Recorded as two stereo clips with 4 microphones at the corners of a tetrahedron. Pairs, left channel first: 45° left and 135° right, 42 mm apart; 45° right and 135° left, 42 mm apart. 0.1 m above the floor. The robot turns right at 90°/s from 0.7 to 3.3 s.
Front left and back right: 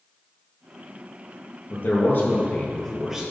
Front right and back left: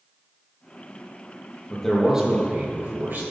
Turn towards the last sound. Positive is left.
turn(degrees=165)